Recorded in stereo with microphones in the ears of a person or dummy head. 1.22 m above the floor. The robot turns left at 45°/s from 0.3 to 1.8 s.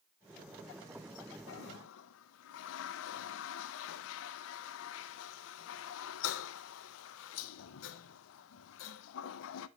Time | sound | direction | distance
1.5 | a toilet flushing | 70° left (ahead or behind) | 0.5 m